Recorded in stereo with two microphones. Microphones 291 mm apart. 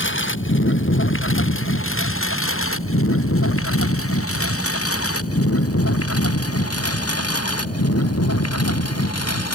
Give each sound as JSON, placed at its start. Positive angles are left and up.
{"t": 0.0, "sound": "a lawn mower", "side_deg": 40}